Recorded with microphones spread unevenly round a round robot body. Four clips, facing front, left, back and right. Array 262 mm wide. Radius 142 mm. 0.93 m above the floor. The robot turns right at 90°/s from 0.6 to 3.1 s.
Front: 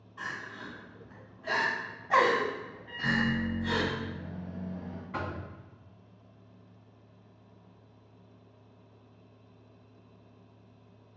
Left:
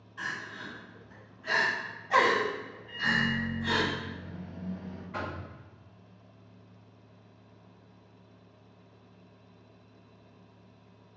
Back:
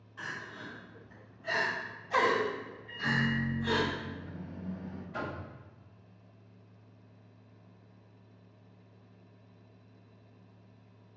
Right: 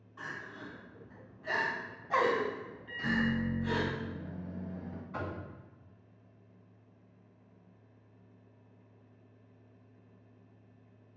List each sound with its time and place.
0.2 s crying: 105° right, 1.6 m; by 3.9 s 120° left, 1.6 m
2.9 s a microwave: 60° right, 0.7 m; by 5.0 s 40° right, 0.7 m
5.1 s knocking: 25° left, 1.4 m